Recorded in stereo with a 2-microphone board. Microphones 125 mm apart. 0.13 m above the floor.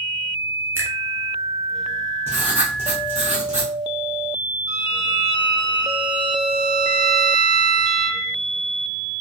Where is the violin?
40° right (ahead or behind), 1.8 m.